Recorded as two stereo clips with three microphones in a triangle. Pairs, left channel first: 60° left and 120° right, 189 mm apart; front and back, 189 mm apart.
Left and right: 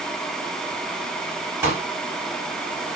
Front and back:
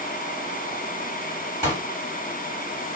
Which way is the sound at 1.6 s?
50° right.